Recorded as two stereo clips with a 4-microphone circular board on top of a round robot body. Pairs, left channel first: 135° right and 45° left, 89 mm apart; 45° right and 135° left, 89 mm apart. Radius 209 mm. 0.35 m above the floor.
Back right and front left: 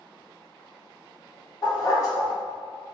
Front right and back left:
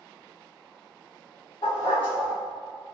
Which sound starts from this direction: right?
A dog barking, at 1.6 s.